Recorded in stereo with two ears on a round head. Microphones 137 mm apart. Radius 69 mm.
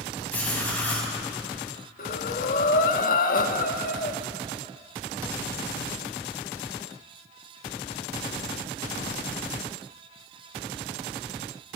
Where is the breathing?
60° left (ahead or behind), 1.7 m.